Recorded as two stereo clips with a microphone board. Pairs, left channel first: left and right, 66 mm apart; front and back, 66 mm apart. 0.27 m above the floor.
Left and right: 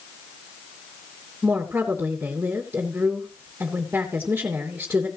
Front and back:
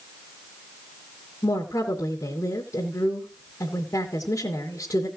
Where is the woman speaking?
30° right, 3 m.